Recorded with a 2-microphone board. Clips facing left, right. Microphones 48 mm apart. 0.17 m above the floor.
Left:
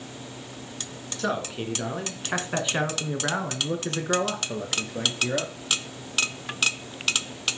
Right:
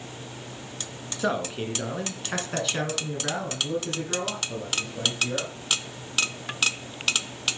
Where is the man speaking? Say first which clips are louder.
Right 1 dB; 5° right (ahead or behind), 1.6 m; by 5.5 s 65° left (ahead or behind), 2.5 m.